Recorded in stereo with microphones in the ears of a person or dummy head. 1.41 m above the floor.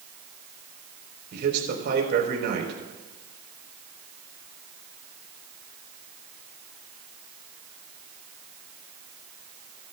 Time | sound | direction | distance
1.3 | a man speaking | 60° right (ahead or behind) | 4 m